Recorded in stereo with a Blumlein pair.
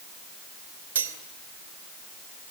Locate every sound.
0.9 s cutlery clinking: 65° right, 2.5 m